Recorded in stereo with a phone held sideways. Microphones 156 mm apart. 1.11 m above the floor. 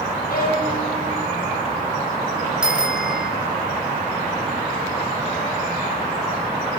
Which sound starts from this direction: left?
A violin, at 0.3 s.